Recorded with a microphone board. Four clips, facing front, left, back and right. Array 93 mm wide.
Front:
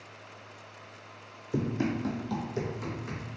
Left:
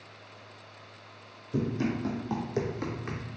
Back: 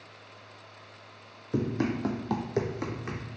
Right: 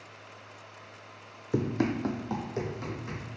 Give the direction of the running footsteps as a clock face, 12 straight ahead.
3 o'clock.